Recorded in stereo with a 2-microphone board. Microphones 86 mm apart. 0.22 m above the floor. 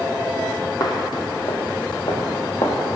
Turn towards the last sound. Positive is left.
turn(degrees=75)  # may be behind; listen again after turning